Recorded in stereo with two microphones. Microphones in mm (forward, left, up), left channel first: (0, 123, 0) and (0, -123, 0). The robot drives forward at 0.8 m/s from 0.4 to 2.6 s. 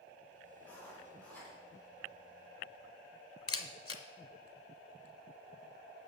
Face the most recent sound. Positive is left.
turn(degrees=65)  # may be behind; listen again after turning